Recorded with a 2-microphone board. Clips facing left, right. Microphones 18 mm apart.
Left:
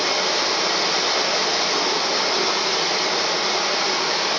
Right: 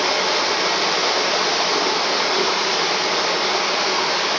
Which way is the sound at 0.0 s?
70° right (ahead or behind).